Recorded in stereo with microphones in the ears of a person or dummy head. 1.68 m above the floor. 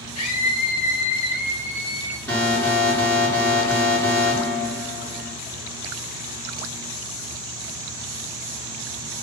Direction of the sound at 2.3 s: 5° left (ahead or behind).